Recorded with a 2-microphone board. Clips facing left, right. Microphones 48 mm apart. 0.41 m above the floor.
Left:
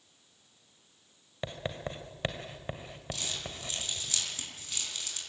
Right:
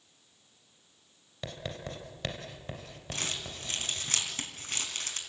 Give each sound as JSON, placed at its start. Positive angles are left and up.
{"t": 1.4, "sound": "writing", "side_deg": 25, "distance_m": 2.0}
{"t": 3.1, "sound": "crumpling", "side_deg": -50, "distance_m": 3.5}